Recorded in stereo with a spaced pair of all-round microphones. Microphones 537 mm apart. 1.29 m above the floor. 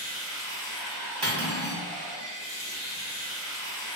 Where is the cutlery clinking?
50° right (ahead or behind), 1.0 m.